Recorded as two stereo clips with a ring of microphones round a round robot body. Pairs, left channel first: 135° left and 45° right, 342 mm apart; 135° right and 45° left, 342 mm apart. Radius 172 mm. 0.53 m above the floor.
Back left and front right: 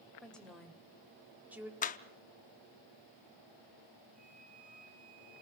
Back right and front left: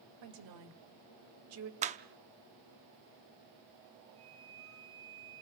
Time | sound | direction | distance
0.2 | a woman speaking | 50° left | 3 m
1.8 | a clap | 95° left | 0.6 m
4.2 | a flute | 20° left | 4.5 m